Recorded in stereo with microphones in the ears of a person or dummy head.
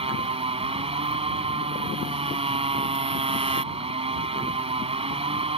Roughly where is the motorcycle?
Right.